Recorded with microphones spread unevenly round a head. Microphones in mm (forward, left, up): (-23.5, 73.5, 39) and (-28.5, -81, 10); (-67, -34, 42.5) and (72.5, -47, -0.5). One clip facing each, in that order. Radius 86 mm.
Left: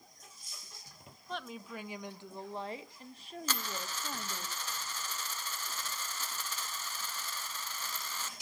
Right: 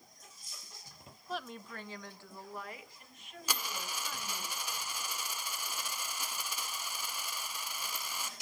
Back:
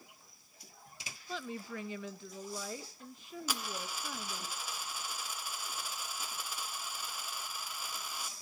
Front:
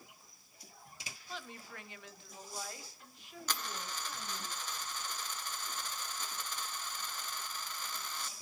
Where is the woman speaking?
175° right, 0.7 m; by 4.5 s 140° left, 2 m.